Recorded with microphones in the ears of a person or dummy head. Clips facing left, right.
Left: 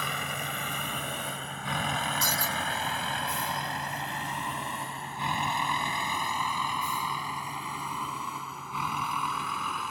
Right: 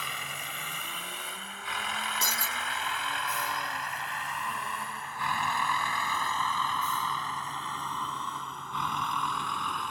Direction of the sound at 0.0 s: 50° left (ahead or behind).